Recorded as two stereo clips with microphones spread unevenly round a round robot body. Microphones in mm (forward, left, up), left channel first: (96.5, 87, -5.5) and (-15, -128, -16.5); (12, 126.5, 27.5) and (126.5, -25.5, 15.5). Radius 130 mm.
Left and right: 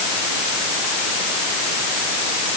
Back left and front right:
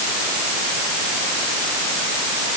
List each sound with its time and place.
Only background noise.